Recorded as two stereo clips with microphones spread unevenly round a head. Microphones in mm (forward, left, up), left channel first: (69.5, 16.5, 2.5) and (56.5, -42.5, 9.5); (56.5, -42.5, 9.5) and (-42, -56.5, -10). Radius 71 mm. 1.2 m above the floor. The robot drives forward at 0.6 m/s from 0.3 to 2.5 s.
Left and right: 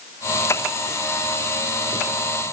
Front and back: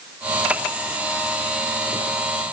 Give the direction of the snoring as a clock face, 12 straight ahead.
I don't hear snoring.